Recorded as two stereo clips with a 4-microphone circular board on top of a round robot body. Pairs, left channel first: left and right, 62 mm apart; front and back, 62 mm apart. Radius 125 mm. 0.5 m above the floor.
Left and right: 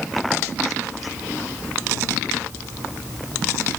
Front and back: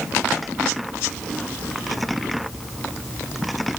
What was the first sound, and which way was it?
Only background noise.